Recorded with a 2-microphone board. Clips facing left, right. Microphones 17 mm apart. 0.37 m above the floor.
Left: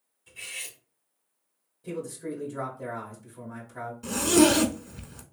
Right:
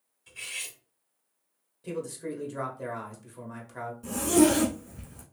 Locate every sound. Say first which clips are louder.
0.3 s cutlery clinking: right 1 dB; 35° right (ahead or behind), 1.4 m
1.8 s a man speaking: even; 35° right (ahead or behind), 1.3 m
4.0 s a zipper: left 2 dB; 70° left (ahead or behind), 0.6 m